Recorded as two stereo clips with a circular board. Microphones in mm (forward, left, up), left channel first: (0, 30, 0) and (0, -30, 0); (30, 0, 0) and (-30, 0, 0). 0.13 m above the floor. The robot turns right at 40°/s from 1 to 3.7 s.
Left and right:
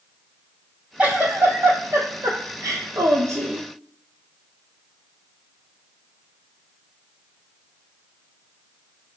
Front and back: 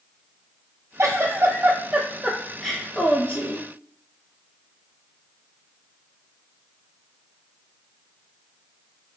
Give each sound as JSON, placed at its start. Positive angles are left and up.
{"t": 1.0, "sound": "a giggle", "azimuth_deg": -155, "distance_m": 0.8}